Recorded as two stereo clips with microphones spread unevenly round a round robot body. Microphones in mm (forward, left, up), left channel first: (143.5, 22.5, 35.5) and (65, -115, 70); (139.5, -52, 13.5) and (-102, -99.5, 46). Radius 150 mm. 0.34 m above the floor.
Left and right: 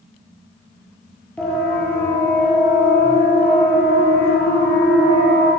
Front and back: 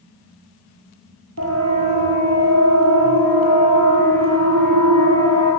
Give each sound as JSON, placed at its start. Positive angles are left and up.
{"t": 1.4, "sound": "a siren", "azimuth_deg": 145, "distance_m": 9.5}